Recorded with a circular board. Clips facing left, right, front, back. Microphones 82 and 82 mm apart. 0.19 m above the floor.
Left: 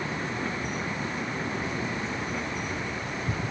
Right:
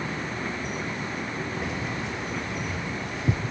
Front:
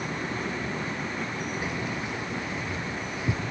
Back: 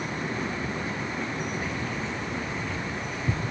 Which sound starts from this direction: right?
Keys jangling, at 1.6 s.